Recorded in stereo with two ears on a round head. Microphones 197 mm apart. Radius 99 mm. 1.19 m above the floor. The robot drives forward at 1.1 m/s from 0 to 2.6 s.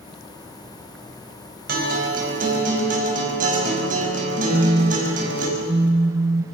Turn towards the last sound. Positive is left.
turn(degrees=-30)  # may be behind; listen again after turning